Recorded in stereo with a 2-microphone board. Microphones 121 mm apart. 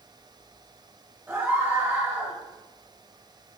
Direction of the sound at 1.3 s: 15° right (ahead or behind).